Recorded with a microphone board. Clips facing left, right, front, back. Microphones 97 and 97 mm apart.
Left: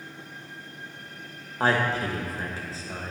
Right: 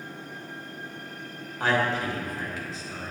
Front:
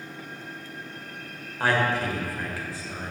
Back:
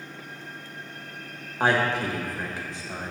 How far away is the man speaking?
About 1.3 m.